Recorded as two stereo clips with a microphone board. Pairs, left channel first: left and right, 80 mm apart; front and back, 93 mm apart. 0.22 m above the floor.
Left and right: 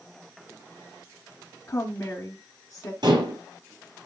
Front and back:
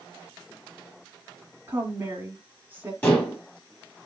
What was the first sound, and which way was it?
A woman speaking, 120° left.